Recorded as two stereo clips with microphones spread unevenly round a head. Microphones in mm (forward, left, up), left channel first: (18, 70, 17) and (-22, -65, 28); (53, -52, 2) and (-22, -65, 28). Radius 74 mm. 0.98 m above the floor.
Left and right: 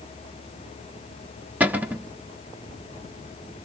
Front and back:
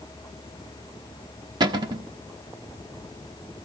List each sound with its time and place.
1.6 s a cupboard door: 175° left, 0.8 m